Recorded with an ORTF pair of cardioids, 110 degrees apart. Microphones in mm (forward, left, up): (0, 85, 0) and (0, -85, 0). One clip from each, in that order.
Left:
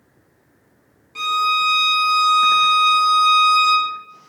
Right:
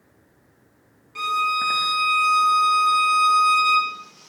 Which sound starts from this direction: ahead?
A violin, at 1.1 s.